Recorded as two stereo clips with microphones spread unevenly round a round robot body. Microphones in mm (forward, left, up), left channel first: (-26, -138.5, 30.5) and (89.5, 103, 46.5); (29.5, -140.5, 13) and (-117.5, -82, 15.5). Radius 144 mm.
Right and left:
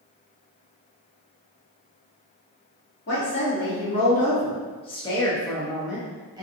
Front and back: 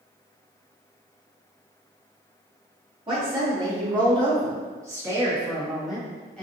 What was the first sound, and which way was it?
A woman speaking, 150° right.